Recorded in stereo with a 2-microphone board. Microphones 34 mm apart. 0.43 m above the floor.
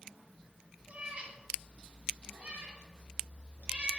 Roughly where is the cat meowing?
Right.